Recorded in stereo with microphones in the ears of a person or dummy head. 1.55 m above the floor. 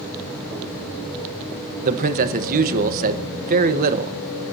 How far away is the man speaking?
About 1.2 m.